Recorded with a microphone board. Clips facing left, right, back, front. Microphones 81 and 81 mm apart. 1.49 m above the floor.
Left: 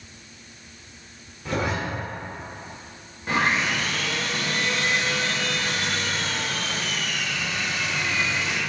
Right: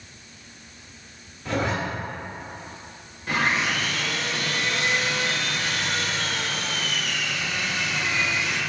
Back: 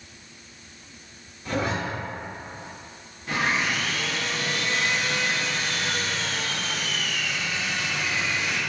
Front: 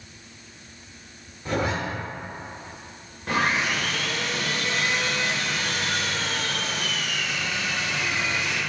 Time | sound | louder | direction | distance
1.4 | a zipper | right 1 dB, front 1 dB | 35° left | 1.2 m
3.3 | sawing | left 1 dB, front 2 dB | 30° left | 1.1 m